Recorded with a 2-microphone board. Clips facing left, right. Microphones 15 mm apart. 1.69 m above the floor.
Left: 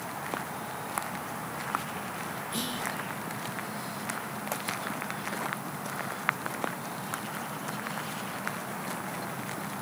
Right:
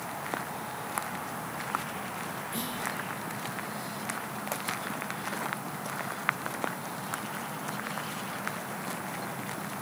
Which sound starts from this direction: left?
Whispering, at 2.5 s.